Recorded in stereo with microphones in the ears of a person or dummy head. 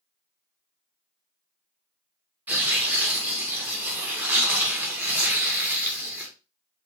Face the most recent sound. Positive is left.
turn(degrees=-10)  # may be behind; listen again after turning